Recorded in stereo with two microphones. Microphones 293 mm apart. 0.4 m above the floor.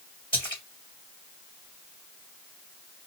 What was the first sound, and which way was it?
A splash, 15° left (ahead or behind).